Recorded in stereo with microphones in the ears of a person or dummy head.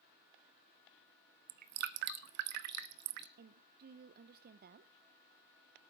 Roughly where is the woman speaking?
Right.